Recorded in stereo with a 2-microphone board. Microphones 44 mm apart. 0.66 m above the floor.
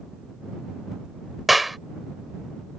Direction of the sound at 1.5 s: 5° right (ahead or behind).